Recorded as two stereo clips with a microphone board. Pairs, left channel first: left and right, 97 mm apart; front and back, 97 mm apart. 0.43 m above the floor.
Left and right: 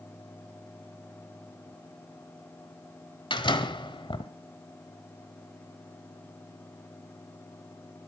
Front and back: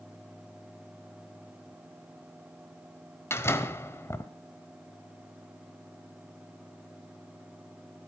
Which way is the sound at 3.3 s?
60° left.